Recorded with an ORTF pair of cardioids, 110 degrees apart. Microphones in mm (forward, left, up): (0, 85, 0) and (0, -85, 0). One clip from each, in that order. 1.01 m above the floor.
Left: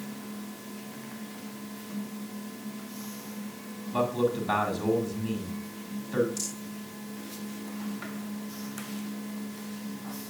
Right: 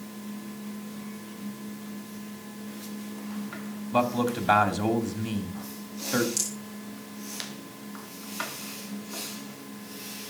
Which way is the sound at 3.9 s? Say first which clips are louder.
Right 1 dB; 50° right.